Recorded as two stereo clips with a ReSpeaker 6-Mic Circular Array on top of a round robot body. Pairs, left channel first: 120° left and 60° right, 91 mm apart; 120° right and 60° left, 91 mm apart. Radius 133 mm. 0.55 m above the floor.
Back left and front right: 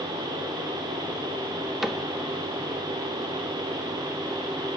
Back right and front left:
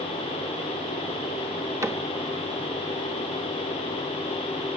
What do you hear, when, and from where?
1.8 s a cupboard door: 25° left, 1.4 m